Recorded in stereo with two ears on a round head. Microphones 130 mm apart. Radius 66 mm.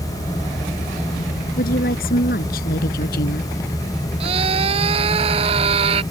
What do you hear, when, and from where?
1.6 s a woman speaking: 75° left (ahead or behind)
4.2 s a scream: 45° right (ahead or behind)